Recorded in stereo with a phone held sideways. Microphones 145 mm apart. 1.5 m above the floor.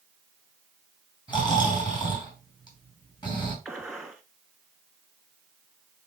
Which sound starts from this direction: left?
Snoring, at 1.3 s.